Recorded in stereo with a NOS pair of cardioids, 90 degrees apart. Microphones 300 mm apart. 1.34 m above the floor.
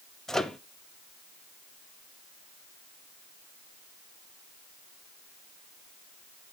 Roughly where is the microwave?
Ahead.